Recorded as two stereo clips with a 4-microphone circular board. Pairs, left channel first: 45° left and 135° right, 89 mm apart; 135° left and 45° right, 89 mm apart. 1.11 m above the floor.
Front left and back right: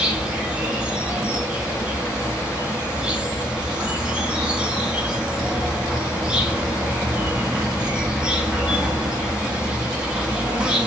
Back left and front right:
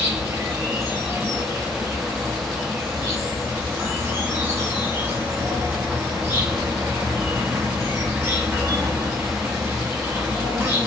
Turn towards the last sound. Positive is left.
turn(degrees=-75)